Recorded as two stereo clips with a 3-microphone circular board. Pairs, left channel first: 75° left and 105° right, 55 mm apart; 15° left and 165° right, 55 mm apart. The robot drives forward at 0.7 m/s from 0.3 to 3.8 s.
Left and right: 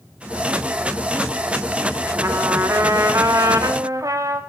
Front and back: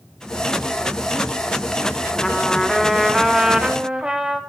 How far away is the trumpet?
About 3 m.